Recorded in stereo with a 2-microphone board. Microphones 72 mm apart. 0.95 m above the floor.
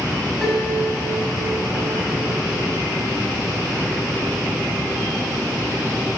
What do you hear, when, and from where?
0.4 s a piano: centre (ahead or behind), 5.5 m